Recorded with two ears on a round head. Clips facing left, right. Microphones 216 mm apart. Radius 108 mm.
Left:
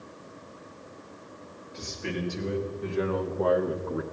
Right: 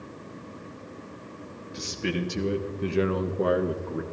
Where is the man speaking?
45° right (ahead or behind), 1.8 m; by 4.0 s 5° left (ahead or behind), 0.8 m.